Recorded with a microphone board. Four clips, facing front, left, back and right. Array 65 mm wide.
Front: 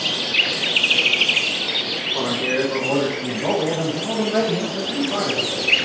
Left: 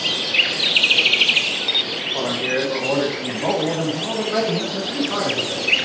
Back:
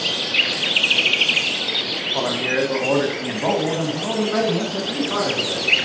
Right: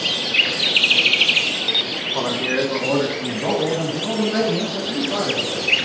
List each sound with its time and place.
2.1 s a man speaking: 145° right, 1.5 m; by 5.7 s 135° left, 3 m